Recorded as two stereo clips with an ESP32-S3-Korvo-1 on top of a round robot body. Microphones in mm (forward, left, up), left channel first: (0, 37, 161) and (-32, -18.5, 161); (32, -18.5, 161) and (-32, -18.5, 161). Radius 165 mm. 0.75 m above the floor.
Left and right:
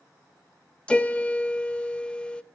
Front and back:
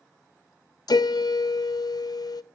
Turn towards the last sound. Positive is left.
turn(degrees=-15)